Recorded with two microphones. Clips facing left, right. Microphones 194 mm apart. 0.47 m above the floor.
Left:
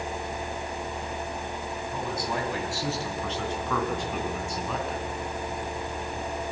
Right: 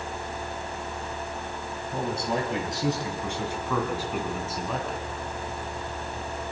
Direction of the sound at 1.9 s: 30° right (ahead or behind).